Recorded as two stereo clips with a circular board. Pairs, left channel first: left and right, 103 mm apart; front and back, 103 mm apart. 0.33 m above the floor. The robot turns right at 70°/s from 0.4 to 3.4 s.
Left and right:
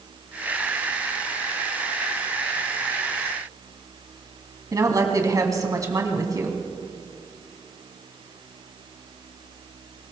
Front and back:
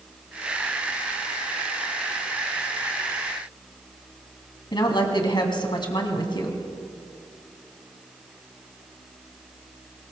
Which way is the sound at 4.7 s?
40° right.